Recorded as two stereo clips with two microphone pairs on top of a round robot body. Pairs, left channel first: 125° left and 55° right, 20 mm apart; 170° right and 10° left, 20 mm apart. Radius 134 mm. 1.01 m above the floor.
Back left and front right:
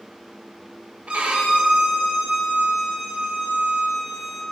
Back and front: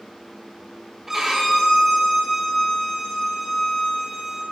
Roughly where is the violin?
Ahead right.